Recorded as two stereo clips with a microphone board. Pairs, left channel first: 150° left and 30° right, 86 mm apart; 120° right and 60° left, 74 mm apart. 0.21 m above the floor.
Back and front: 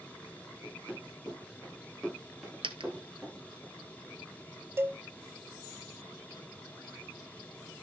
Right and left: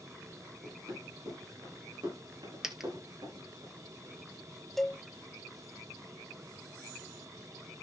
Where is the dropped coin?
25° right, 1.2 m.